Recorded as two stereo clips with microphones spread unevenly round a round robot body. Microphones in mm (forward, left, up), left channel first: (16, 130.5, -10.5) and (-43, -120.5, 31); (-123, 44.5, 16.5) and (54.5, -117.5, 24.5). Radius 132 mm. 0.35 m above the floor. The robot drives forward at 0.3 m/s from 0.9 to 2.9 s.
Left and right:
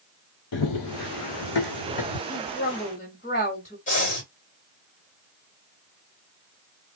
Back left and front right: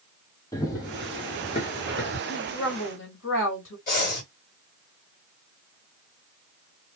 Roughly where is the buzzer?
I don't hear a buzzer.